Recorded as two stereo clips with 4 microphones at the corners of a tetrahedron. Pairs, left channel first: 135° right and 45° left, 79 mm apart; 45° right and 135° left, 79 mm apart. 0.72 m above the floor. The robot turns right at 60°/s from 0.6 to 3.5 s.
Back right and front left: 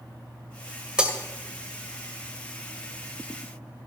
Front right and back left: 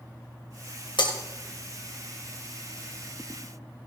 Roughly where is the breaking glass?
Ahead right.